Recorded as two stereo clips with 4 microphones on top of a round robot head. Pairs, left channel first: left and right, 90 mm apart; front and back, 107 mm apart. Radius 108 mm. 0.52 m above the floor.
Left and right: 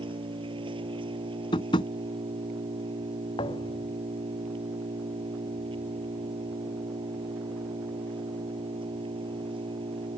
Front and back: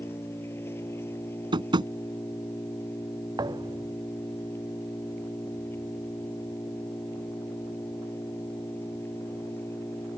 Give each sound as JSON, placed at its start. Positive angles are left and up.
{"t": 0.0, "sound": "an engine running", "azimuth_deg": -70}
{"t": 1.5, "sound": "tapping", "azimuth_deg": 135}
{"t": 3.4, "sound": "a thud", "azimuth_deg": 130}